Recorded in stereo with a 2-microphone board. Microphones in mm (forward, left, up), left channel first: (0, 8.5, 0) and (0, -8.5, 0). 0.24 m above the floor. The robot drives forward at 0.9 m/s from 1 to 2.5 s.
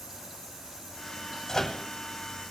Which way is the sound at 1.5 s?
30° left (ahead or behind).